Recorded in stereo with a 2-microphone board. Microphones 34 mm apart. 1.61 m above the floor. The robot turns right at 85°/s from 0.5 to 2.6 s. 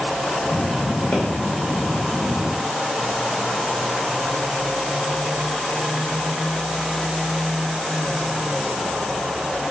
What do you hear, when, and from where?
1.1 s a pop: 35° left (ahead or behind), 3 m; by 1.2 s 45° left (ahead or behind), 3 m